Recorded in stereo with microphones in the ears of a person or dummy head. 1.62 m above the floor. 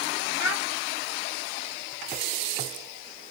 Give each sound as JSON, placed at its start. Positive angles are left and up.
{"t": 0.4, "sound": "a child speaking", "side_deg": 0, "distance_m": 1.8}